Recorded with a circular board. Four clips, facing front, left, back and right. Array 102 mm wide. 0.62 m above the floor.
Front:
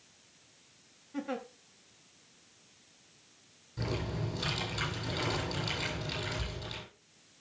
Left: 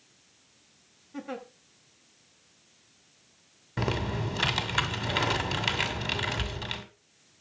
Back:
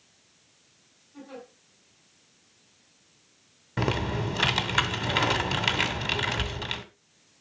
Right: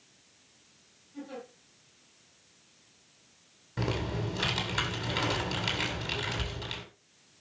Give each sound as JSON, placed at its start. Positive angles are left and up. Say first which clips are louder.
{"t": 1.1, "sound": "a giggle", "louder": "left 4 dB, front 6 dB", "azimuth_deg": 45, "distance_m": 2.5}
{"t": 3.8, "sound": "typing on a keyboard", "louder": "left 2 dB, back 8 dB", "azimuth_deg": 160, "distance_m": 2.0}